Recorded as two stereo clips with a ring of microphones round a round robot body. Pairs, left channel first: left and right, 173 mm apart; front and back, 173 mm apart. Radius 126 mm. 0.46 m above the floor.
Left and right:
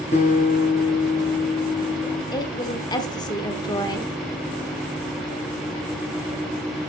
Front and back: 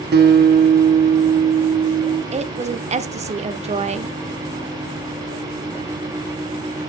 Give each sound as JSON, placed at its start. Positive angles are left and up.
{"t": 0.1, "sound": "a guitar", "azimuth_deg": 155, "distance_m": 2.0}
{"t": 2.3, "sound": "a woman speaking", "azimuth_deg": 150, "distance_m": 1.0}